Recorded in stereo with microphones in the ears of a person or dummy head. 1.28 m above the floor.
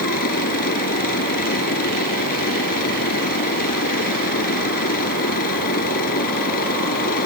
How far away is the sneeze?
No sneeze in this recording.